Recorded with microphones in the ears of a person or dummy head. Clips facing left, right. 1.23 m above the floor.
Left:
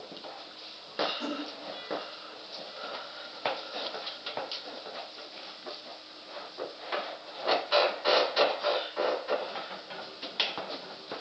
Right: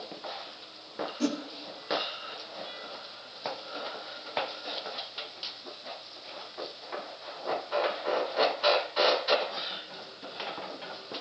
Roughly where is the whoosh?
Right.